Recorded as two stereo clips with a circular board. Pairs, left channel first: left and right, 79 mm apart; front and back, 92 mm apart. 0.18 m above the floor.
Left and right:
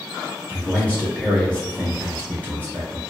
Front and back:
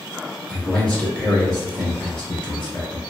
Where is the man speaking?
65° left, 1.1 m.